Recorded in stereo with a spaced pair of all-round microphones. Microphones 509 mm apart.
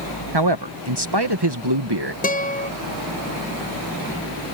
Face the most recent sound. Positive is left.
turn(degrees=15)  # may be behind; listen again after turning